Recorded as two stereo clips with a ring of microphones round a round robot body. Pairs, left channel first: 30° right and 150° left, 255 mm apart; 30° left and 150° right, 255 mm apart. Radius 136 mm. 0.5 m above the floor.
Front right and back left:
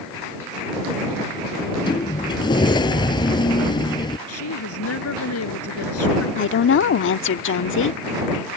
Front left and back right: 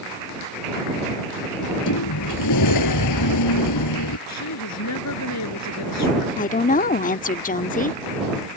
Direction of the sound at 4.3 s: 5° left.